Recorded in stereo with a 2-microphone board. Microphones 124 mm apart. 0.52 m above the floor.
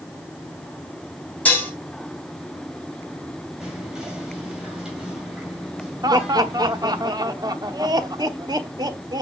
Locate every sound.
1.4 s dishes clattering: 10° left (ahead or behind), 2.5 m
3.6 s whispering: 5° right (ahead or behind), 2.5 m
6.0 s laughter: 30° right (ahead or behind), 1.0 m